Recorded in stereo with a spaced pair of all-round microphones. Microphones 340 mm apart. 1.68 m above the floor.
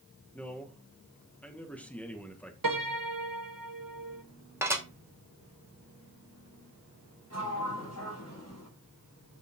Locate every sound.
0.3 s a man speaking: 5° left (ahead or behind), 1.9 m
2.6 s a piano: 65° right (ahead or behind), 1.2 m
4.6 s dishes clattering: 5° right (ahead or behind), 2.5 m
7.3 s a sliding door: 45° left (ahead or behind), 6 m